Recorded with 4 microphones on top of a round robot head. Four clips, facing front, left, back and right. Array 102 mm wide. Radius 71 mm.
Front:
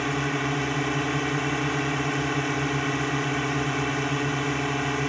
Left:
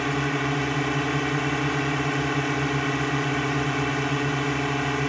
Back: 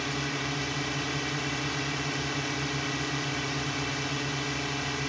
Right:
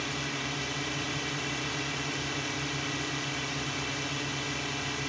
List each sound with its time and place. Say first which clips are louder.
0.0 s a drone: left 10 dB, front 6 dB; 55° left